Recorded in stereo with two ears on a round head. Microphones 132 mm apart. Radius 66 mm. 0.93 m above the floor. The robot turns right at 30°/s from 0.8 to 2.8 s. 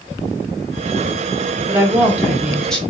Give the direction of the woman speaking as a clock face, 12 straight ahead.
1 o'clock.